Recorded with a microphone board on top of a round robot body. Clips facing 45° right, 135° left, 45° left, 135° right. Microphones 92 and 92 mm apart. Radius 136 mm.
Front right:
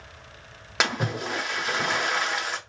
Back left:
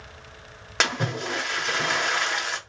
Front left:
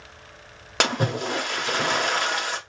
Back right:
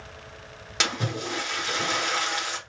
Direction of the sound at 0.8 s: 40° left.